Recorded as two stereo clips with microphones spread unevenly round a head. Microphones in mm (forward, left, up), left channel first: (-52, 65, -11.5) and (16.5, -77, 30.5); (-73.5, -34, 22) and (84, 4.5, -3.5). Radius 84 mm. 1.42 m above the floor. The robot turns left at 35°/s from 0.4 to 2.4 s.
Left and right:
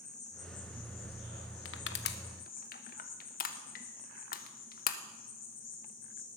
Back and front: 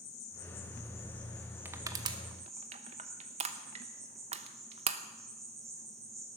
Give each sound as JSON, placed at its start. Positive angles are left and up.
{"t": 0.0, "sound": "an insect", "azimuth_deg": 155, "distance_m": 2.5}
{"t": 1.6, "sound": "crushing", "azimuth_deg": 95, "distance_m": 0.8}